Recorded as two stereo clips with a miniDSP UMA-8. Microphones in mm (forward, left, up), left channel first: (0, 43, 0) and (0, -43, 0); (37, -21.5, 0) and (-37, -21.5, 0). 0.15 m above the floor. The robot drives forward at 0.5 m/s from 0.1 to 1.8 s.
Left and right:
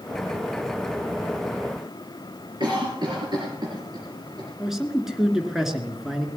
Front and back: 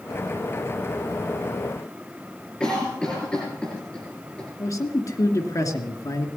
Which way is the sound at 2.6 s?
75° right.